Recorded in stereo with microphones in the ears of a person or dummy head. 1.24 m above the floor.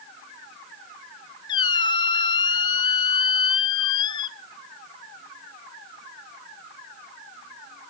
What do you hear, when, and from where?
1.5 s a squeak: 30° left (ahead or behind), 0.9 m